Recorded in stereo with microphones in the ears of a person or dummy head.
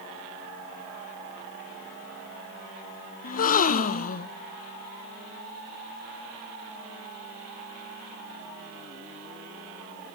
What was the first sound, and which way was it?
A gasp, 45° left (ahead or behind).